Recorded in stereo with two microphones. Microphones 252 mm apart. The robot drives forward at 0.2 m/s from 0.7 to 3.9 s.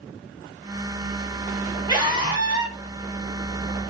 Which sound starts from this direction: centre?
A scream, at 1.9 s.